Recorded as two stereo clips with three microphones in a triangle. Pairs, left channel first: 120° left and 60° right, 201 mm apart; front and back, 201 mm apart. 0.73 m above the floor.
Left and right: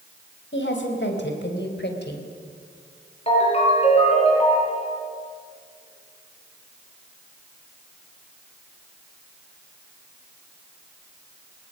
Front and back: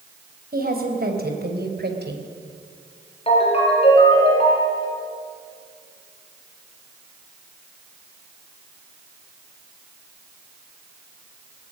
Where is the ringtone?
60° left, 6.5 m.